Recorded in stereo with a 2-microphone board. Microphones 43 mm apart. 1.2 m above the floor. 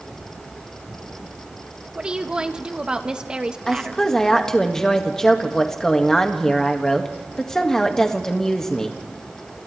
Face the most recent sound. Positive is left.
turn(degrees=10)  # may be behind; listen again after turning